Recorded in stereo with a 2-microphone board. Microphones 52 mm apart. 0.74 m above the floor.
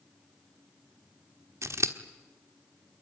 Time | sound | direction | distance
1.6 | scissors | 65° right (ahead or behind) | 1.4 m